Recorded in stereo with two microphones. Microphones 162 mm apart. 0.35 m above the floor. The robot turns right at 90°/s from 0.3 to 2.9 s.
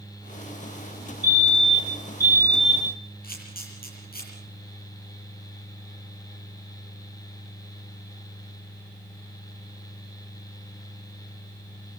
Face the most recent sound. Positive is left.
turn(degrees=65)  # may be behind; listen again after turning